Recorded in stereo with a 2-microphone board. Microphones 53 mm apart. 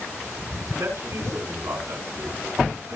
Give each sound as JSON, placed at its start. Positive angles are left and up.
{"t": 0.8, "sound": "a man speaking", "side_deg": -75, "distance_m": 6.0}